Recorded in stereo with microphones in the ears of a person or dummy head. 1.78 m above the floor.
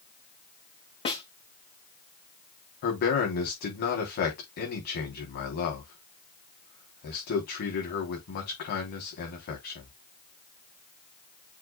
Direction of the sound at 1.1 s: 30° left (ahead or behind).